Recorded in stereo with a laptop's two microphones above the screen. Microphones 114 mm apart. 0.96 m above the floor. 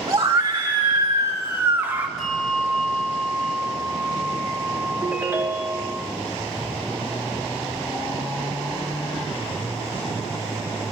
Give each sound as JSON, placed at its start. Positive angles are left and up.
{"t": 0.1, "sound": "a scream", "side_deg": -45, "distance_m": 1.1}
{"t": 2.2, "sound": "a bell", "side_deg": 5, "distance_m": 1.5}
{"t": 5.0, "sound": "a ringtone", "side_deg": -20, "distance_m": 1.3}